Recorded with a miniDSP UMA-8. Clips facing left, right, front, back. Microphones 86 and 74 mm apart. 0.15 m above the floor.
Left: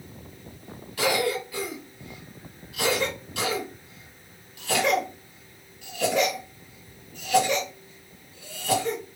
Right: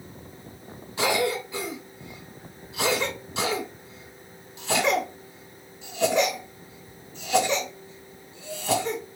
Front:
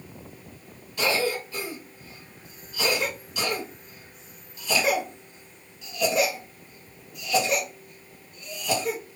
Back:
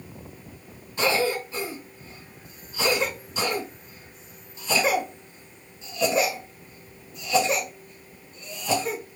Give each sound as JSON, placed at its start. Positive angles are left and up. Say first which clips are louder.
{"t": 1.0, "sound": "a cough", "louder": "even, back 2 dB", "azimuth_deg": -135, "distance_m": 1.7}